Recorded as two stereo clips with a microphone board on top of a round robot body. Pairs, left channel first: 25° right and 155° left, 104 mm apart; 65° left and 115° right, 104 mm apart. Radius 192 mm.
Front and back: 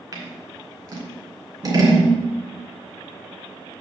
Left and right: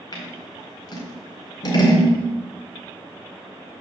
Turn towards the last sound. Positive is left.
turn(degrees=105)